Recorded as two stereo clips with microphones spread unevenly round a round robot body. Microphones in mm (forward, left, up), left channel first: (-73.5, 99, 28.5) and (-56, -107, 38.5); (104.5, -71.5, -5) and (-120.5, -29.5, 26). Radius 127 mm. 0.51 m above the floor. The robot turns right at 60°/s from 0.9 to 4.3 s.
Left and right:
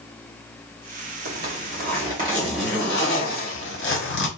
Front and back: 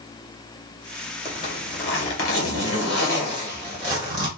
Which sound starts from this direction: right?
A zipper, at 1.2 s.